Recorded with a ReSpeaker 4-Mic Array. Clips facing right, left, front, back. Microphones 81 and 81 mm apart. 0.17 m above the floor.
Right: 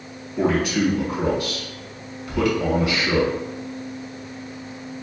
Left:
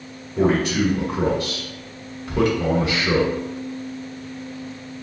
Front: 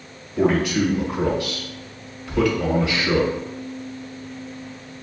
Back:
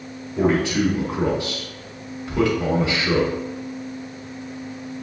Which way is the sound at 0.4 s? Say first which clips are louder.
Left 1 dB, even; 125° left.